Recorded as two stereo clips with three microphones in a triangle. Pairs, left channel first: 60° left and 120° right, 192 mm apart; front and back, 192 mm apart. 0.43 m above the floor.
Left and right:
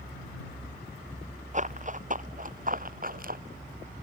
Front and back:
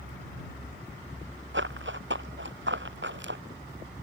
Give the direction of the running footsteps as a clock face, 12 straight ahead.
6 o'clock.